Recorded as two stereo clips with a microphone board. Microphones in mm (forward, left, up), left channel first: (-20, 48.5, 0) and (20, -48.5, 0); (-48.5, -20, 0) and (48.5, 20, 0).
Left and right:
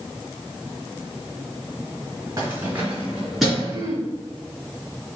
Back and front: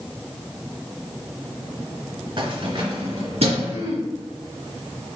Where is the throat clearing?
15° right, 1.9 m.